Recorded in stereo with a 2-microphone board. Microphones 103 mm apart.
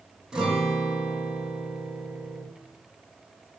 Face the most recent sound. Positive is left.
turn(degrees=-5)  # may be behind; listen again after turning